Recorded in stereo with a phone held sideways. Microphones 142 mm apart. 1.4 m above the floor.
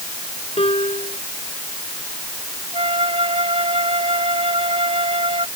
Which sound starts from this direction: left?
A piano, at 0.6 s.